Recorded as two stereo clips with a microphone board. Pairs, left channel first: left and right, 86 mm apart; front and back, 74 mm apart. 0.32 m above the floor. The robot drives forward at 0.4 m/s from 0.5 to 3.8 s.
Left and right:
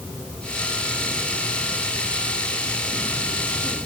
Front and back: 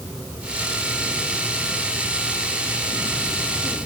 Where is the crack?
No crack in this recording.